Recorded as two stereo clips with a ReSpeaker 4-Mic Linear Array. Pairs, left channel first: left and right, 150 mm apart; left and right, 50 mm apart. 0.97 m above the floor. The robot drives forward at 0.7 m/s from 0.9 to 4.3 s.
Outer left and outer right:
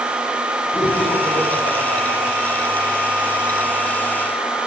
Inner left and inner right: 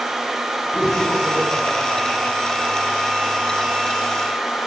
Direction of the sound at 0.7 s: 50° left (ahead or behind).